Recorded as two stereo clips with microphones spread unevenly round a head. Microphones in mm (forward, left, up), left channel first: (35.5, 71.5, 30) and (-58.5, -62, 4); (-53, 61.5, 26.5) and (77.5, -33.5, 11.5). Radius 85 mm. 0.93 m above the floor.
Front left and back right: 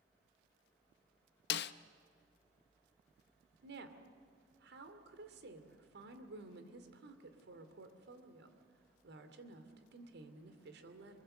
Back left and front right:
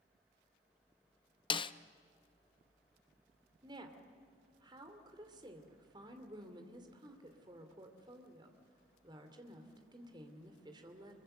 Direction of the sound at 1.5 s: 80° left.